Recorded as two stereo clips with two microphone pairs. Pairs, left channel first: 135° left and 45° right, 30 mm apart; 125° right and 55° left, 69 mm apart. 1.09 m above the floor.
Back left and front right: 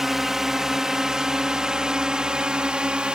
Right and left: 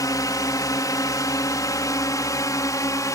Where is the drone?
120° right; by 3.1 s 95° right.